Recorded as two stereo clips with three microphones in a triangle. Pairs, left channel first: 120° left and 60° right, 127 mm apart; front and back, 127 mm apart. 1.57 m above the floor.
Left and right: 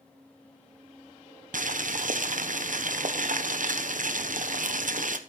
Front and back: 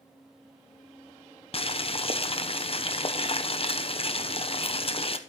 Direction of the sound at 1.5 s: 45° right.